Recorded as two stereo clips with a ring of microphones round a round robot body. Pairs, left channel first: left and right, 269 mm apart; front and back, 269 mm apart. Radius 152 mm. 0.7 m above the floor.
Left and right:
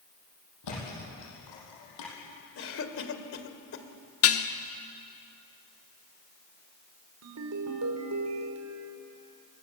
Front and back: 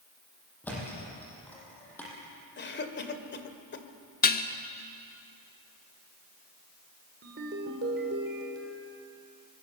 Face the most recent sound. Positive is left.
turn(degrees=-125)